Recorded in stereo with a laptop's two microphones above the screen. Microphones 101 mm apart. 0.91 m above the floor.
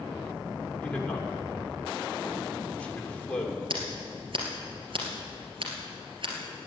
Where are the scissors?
60° right (ahead or behind), 3 m.